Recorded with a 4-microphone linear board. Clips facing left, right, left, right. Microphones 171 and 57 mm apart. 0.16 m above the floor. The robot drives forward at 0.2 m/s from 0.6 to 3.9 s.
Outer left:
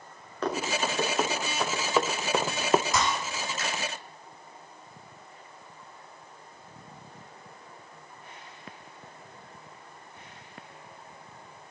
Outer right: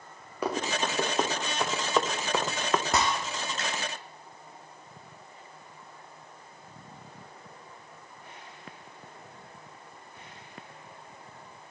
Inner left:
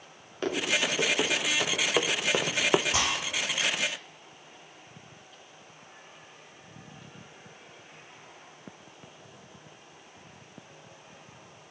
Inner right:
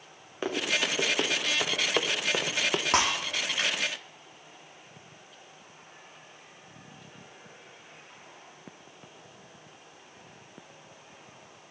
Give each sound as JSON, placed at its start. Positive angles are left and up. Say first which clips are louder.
{"t": 0.4, "sound": "running footsteps", "louder": "even, inner left 1 dB", "side_deg": -10, "distance_m": 3.5}
{"t": 2.9, "sound": "breaking glass", "louder": "even, inner right 3 dB", "side_deg": -65, "distance_m": 4.5}